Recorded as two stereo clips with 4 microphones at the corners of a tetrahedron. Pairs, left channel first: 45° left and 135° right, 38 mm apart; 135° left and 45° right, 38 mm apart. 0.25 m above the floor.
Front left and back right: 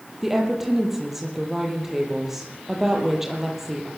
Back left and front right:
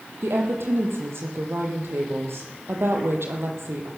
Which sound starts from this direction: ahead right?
A woman speaking, at 0.2 s.